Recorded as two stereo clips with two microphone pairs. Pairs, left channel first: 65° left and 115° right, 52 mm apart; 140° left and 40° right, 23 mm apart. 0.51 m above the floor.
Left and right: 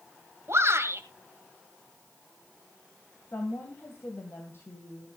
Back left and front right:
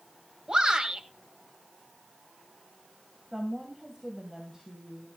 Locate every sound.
0.5 s a shout: 85° right, 2 m
3.3 s a woman speaking: 30° left, 2.5 m